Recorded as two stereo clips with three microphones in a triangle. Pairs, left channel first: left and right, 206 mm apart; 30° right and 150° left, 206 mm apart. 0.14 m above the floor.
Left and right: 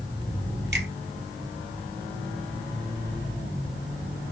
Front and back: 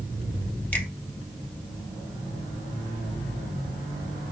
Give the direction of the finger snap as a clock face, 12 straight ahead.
4 o'clock.